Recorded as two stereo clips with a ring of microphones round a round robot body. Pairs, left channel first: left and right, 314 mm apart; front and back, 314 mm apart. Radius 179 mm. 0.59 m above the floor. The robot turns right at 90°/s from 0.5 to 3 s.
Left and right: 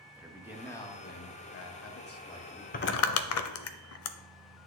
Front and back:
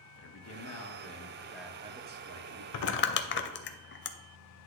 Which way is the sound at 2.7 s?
30° left.